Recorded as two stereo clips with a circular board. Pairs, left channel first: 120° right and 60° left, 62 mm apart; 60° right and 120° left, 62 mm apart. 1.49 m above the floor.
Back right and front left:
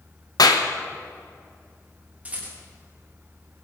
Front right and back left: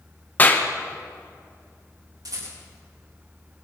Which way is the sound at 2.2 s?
130° left.